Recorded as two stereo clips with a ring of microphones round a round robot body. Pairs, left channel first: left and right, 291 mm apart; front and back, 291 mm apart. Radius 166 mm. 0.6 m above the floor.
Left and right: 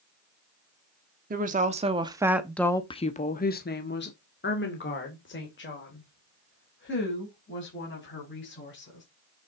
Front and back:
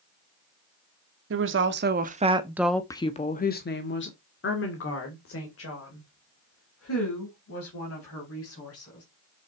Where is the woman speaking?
145° right, 1.4 m; by 9.0 s 40° left, 5.5 m.